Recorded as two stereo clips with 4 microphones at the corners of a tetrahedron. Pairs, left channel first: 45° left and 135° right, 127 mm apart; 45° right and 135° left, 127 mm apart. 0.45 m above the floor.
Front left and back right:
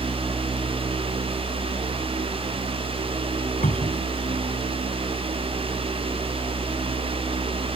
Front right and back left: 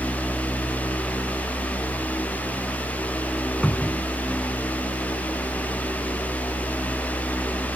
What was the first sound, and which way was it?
A cupboard door, 35° left.